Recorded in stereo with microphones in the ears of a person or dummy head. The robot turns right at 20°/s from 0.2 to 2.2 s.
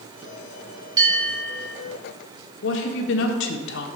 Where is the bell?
20° right (ahead or behind), 3.5 m; by 1.7 s 5° right (ahead or behind), 3.5 m.